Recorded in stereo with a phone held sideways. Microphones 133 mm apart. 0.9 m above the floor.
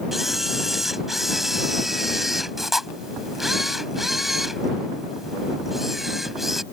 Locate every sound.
0.1 s a camera shutter: centre (ahead or behind)